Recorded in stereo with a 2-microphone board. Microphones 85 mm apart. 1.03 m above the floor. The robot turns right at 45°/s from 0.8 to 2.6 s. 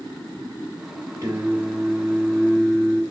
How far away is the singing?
About 3.5 m.